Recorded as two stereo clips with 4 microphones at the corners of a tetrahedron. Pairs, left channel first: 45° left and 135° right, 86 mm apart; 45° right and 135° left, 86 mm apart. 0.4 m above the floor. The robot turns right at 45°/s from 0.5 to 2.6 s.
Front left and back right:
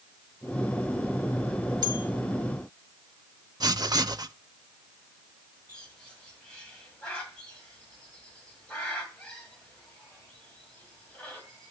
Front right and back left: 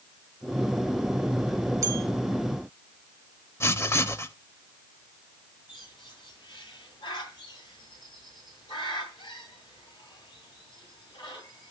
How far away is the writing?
About 0.5 m.